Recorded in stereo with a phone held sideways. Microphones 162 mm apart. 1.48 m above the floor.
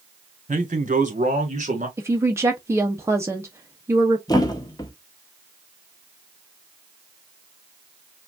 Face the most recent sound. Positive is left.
turn(degrees=25)  # may be behind; listen again after turning